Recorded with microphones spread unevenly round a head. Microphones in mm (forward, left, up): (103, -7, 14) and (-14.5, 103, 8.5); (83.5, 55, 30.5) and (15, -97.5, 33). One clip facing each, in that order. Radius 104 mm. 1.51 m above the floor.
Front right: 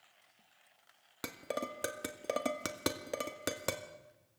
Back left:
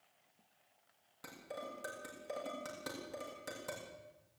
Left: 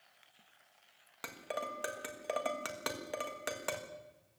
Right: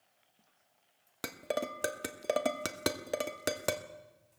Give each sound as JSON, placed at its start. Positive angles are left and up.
{"t": 1.2, "sound": "dishes clattering", "azimuth_deg": -70, "distance_m": 1.4}